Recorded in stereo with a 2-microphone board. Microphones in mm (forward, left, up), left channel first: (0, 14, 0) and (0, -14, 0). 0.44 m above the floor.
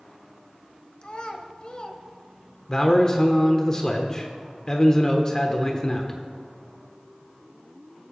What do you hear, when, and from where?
1.0 s a child speaking: 40° left (ahead or behind), 1.2 m
2.7 s a man speaking: 25° left (ahead or behind), 0.8 m